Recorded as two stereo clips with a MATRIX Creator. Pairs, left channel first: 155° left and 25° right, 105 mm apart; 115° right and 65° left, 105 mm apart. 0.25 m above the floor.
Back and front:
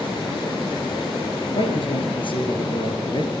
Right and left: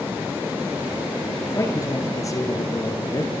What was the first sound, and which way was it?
A man speaking, 175° right.